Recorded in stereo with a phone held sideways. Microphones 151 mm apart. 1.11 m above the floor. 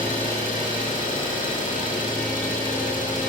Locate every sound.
0.0 s an engine running: 60° left (ahead or behind), 2.0 m